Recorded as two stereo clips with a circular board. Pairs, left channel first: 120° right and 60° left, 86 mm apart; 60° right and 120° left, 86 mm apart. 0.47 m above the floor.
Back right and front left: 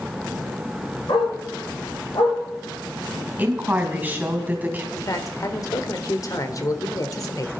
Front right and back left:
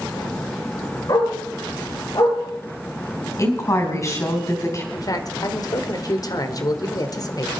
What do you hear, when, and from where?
1.1 s a dog barking: 95° right, 8.5 m
3.4 s a woman speaking: 10° right, 3.5 m
4.9 s a man speaking: 85° right, 1.5 m